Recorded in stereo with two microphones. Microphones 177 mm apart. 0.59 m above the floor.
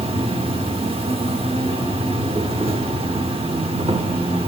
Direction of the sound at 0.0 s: 35° right (ahead or behind).